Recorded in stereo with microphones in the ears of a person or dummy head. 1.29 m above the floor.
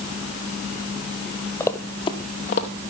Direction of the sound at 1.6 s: 10° left (ahead or behind).